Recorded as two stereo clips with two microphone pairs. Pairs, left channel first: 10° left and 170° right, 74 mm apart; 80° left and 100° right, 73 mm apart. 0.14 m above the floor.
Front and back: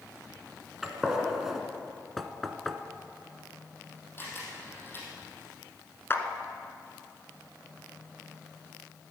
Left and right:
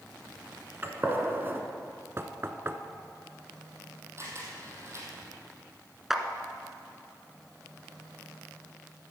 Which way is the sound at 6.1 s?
20° right.